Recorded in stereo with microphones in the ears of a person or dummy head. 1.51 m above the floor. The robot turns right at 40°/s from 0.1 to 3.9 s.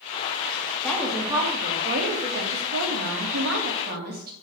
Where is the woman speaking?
Straight behind, 2.0 m; by 4.3 s 55° right, 2.0 m.